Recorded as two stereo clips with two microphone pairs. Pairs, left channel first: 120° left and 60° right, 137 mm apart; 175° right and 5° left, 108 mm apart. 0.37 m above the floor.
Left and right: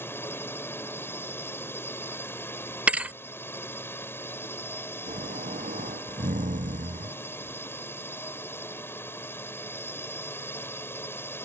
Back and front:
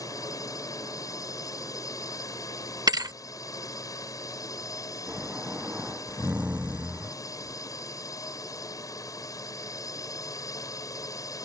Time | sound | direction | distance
0.0 | a drone | straight behind | ?
2.9 | a thud | 20° left | ?
5.1 | snoring | 70° right | ?